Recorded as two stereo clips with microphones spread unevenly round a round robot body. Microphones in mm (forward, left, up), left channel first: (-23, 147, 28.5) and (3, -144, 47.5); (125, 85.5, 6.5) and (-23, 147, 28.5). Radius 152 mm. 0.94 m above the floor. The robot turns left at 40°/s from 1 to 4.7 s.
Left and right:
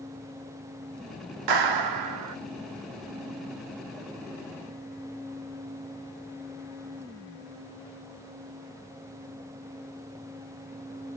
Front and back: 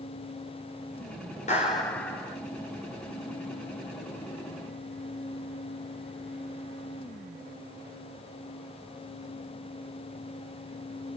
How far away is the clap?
About 1.9 m.